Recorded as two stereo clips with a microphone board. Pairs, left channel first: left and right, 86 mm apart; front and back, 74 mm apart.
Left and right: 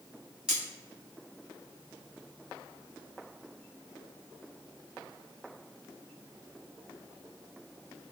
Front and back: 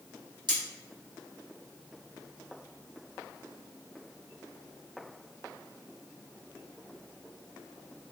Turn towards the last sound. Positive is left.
turn(degrees=-170)